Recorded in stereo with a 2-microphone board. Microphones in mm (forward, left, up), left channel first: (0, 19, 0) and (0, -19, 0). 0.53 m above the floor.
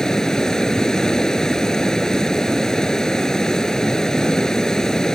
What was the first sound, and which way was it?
Running water, 15° left (ahead or behind).